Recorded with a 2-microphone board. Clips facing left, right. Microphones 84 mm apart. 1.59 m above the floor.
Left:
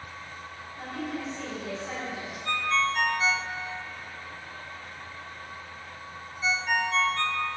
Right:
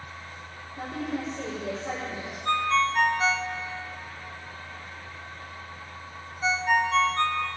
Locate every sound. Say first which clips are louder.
0.8 s a woman speaking: right 3 dB; 70° right (ahead or behind), 4 m
2.5 s a ringtone: right 3 dB; 40° right (ahead or behind), 0.7 m